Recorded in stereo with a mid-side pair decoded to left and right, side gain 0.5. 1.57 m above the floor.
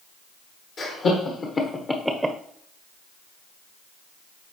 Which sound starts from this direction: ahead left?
Laughter, at 0.8 s.